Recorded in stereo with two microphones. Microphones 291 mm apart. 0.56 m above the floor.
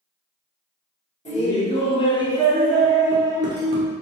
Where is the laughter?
25° left (ahead or behind), 1.1 m; by 3.9 s 20° right (ahead or behind), 0.8 m.